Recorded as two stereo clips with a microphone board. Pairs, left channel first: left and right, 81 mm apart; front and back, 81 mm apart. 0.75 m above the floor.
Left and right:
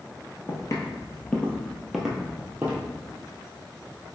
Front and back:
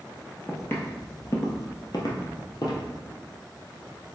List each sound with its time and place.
0.5 s footsteps: 60° left, 1.2 m; by 2.8 s 30° right, 1.6 m